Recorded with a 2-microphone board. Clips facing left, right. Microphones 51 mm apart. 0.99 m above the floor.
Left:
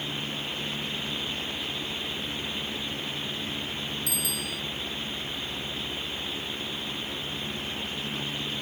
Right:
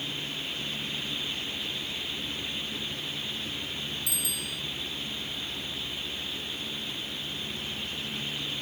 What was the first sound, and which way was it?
A bicycle bell, 65° left (ahead or behind).